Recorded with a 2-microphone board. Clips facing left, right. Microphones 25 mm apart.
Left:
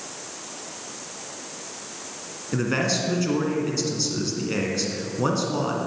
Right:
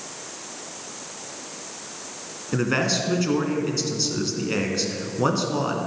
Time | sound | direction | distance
2.5 | a man speaking | 15° right (ahead or behind) | 2 m